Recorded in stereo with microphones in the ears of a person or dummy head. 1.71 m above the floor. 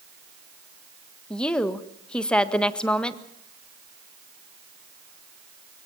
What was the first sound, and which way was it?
A woman speaking, 10° left (ahead or behind).